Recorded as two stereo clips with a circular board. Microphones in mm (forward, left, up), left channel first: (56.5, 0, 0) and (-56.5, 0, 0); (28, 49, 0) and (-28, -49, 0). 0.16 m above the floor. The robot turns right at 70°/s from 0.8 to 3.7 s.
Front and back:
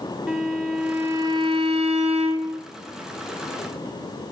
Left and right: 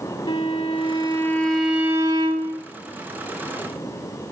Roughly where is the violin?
Left.